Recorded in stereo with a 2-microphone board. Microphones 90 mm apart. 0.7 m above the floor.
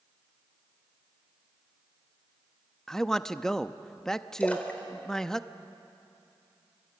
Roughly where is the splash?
Centre.